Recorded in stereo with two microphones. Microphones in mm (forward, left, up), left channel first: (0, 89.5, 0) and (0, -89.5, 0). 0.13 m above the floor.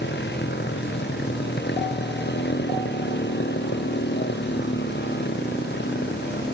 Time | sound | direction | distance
0.0 | a motorcycle | 75° left (ahead or behind) | ?